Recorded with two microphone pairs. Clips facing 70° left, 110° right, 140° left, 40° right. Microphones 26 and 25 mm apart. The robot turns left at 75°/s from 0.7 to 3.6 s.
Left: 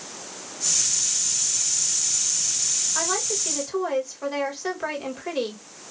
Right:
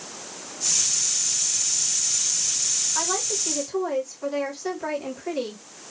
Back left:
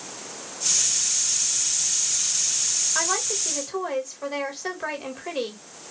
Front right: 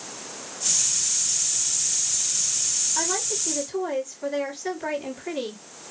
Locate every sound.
3.0 s a woman speaking: 150° left, 1.7 m; by 5.6 s 100° left, 1.7 m